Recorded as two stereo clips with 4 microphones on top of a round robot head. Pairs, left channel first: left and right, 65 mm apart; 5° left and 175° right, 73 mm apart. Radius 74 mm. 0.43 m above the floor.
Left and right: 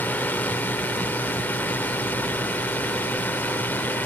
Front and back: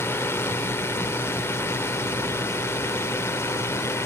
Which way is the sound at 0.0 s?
40° left.